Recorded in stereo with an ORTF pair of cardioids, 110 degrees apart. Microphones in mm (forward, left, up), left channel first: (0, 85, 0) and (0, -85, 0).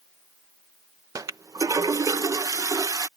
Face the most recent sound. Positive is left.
turn(degrees=-20)